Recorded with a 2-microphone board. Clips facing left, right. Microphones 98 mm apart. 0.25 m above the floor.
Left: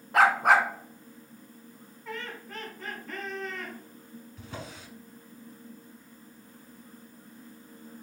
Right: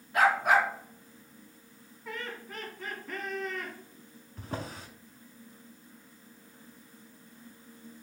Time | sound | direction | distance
0.1 | a dog barking | 75° left (ahead or behind) | 0.5 m
2.0 | laughter | 5° right (ahead or behind) | 1.7 m
4.4 | a drawer | 45° right (ahead or behind) | 0.7 m